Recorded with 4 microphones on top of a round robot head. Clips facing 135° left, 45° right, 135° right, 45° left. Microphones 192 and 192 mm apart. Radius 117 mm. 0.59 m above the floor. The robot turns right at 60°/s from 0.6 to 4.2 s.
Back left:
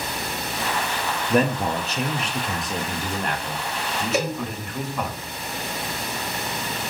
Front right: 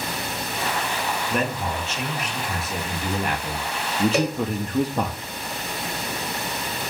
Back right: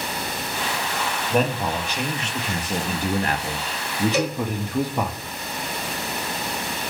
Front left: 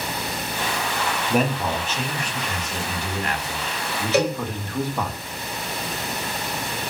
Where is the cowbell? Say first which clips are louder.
Front right 2 dB, front left 8 dB; 50° left, 0.9 m.